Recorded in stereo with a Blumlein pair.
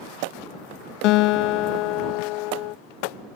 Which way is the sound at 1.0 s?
40° left.